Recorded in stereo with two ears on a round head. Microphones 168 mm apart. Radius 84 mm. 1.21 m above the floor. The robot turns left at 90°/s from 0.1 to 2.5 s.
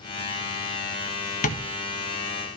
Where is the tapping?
45° left (ahead or behind), 1.5 m; by 1.6 s 60° left (ahead or behind), 1.5 m.